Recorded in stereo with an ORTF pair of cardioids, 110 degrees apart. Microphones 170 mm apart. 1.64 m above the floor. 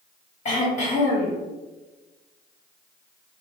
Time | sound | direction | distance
0.5 | throat clearing | 45° left | 1.3 m